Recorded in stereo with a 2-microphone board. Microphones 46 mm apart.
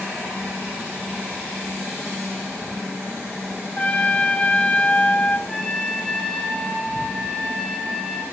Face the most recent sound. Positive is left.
turn(degrees=15)  # may be behind; listen again after turning